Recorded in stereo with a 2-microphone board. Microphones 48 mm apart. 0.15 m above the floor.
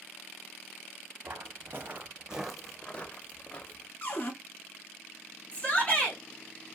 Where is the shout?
35° left (ahead or behind), 1.7 m.